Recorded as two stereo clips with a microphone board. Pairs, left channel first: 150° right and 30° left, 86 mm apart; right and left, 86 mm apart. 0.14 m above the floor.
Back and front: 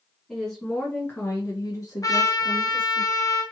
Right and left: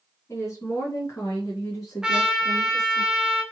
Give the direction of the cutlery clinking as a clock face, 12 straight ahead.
I don't hear cutlery clinking.